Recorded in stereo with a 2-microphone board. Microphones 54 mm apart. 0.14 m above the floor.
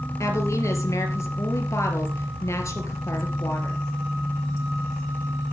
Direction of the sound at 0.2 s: 60° left (ahead or behind).